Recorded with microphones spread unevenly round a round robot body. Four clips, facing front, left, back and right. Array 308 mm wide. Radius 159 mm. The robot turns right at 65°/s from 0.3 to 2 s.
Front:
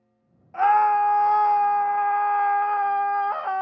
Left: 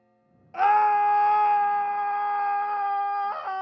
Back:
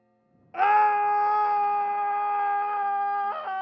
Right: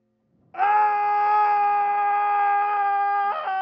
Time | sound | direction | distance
0.5 | a scream | 165° right | 0.8 m